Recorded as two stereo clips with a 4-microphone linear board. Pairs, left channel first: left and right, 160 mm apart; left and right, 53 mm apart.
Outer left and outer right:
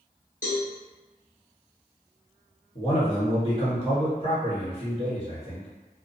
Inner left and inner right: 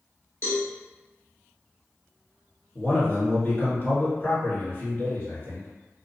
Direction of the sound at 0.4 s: 55° left (ahead or behind).